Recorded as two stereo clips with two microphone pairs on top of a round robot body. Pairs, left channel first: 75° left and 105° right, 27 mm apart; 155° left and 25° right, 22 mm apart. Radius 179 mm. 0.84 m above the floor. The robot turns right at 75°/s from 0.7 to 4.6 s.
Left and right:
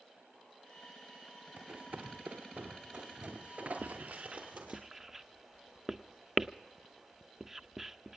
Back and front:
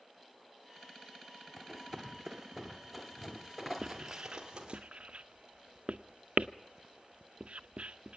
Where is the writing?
85° right, 0.6 m; by 8.2 s 25° right, 0.6 m.